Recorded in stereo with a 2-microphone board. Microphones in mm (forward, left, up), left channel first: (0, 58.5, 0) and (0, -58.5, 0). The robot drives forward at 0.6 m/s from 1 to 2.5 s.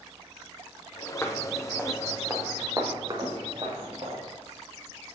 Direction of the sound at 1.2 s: 20° left (ahead or behind).